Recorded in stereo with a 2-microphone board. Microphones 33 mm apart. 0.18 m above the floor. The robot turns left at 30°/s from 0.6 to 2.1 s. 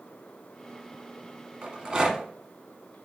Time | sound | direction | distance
1.6 | a rattle | 30° right (ahead or behind) | 1.0 m